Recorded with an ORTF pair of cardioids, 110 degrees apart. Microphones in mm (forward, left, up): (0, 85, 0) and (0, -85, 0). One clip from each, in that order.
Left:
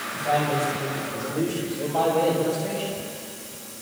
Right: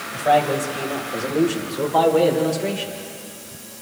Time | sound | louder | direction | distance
0.1 | a man speaking | right 6 dB | 55° right | 6 m